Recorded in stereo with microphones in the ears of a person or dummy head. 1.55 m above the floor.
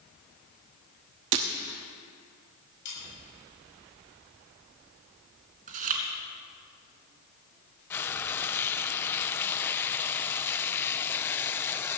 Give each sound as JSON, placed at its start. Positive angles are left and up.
{"t": 1.3, "sound": "breaking glass", "side_deg": -25, "distance_m": 1.1}
{"t": 2.9, "sound": "sawing", "side_deg": 65, "distance_m": 8.0}
{"t": 5.7, "sound": "chewing", "side_deg": -45, "distance_m": 2.5}
{"t": 7.9, "sound": "frying", "side_deg": 15, "distance_m": 0.5}